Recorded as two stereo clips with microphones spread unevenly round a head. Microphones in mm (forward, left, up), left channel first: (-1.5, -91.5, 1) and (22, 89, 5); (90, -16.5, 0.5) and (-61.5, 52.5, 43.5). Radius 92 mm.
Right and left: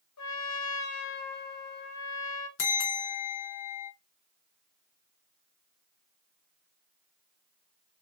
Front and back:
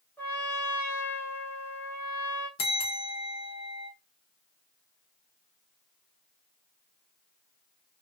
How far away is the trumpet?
About 0.9 m.